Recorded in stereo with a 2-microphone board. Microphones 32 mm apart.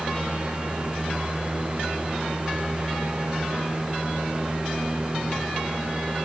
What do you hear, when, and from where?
Only background noise.